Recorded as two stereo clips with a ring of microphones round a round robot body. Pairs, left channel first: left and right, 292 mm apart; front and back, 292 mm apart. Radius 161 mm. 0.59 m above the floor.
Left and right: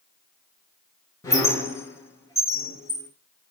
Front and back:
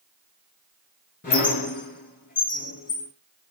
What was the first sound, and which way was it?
A squeak, 20° left.